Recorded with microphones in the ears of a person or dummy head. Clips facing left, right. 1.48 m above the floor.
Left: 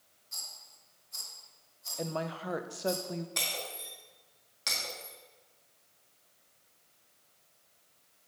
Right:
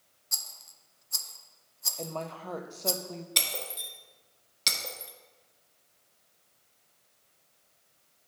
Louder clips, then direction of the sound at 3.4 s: Right 1 dB; 40° right (ahead or behind).